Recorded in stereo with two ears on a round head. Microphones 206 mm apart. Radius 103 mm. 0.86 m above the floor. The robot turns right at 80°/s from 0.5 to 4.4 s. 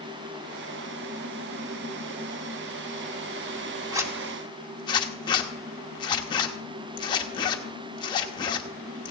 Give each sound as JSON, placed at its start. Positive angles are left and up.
{"t": 3.9, "sound": "a zipper", "side_deg": -15, "distance_m": 0.9}